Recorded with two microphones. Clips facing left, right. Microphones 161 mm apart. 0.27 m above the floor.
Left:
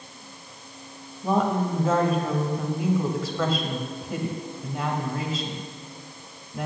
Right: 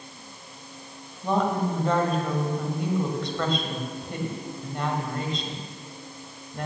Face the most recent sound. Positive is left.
turn(degrees=5)  # may be behind; listen again after turning